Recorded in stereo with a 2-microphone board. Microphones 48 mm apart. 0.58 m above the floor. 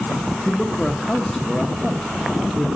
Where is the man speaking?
5° left (ahead or behind), 0.7 m.